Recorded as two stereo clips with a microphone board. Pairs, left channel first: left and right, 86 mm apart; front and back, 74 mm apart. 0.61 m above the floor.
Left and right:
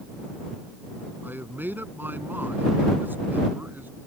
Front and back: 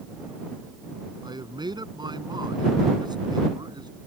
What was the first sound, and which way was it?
A man speaking, 160° right.